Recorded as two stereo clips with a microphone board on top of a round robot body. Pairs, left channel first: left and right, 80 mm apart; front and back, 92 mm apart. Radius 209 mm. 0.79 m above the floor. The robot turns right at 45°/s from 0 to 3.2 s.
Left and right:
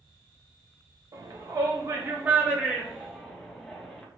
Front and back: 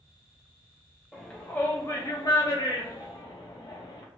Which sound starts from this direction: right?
A shout, at 1.1 s.